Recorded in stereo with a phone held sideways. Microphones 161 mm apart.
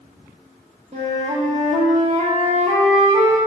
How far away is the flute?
About 0.8 m.